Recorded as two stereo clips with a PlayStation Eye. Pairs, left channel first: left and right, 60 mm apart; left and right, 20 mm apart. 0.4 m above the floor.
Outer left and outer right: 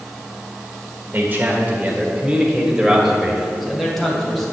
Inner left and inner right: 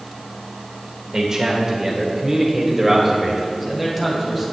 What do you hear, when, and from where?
1.1 s a man speaking: 35° right (ahead or behind), 1.3 m; by 4.5 s 5° left (ahead or behind), 2.5 m